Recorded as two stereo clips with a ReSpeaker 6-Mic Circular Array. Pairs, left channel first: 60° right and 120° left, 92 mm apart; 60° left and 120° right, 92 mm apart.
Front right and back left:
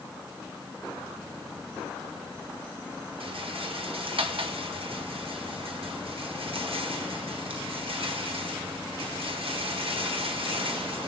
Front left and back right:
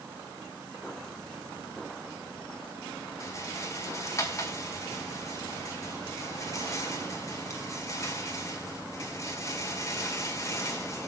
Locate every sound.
3.2 s a rattle: 115° left, 1.8 m